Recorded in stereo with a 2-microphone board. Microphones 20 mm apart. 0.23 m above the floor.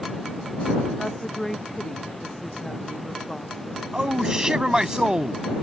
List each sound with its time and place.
1.0 s a woman speaking: 20° left (ahead or behind)
3.9 s a man speaking: 40° right (ahead or behind)